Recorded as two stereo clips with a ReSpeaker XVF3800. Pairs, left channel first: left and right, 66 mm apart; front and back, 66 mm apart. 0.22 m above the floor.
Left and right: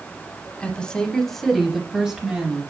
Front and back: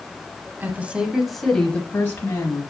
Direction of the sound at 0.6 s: 150° left.